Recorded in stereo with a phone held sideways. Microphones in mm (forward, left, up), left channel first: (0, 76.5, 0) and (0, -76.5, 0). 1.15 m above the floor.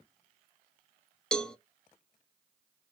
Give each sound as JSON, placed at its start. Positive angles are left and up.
{"t": 1.3, "sound": "a cowbell", "side_deg": 5, "distance_m": 0.5}